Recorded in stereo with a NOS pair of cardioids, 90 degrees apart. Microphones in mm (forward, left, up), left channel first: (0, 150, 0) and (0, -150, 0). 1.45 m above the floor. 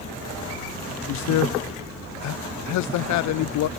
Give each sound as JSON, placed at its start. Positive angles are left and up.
{"t": 1.1, "sound": "a man speaking", "azimuth_deg": 65, "distance_m": 0.5}